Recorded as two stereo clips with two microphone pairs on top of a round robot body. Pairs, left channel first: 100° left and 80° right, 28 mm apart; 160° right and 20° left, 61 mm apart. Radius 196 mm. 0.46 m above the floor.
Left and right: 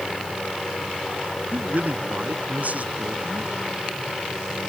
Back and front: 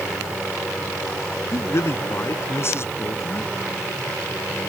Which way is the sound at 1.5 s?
115° right.